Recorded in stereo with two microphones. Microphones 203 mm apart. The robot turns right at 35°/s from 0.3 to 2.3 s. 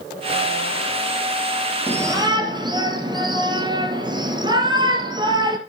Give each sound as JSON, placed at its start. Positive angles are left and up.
{"t": 1.9, "sound": "a shout", "side_deg": -10, "distance_m": 2.5}